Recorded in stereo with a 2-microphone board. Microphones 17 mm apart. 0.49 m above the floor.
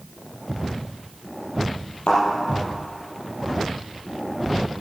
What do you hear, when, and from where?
2.1 s a thud: 90° left, 5 m